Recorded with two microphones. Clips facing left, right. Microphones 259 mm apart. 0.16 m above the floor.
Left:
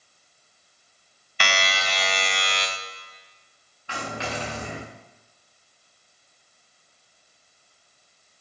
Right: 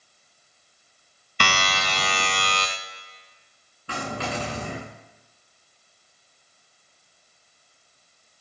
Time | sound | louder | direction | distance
1.4 | a buzzer | right 1 dB | 50° right (ahead or behind) | 2.5 m
3.9 | a dropped coin | right 2 dB | 40° right (ahead or behind) | 8.5 m